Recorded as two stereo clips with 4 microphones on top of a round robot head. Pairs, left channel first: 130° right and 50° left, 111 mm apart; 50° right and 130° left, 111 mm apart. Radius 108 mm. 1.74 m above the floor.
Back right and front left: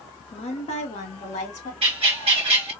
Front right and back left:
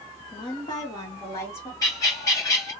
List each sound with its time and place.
0.3 s a woman speaking: 95° right, 1.4 m; by 1.7 s 120° right, 2 m
1.8 s a bird: 10° left, 1.1 m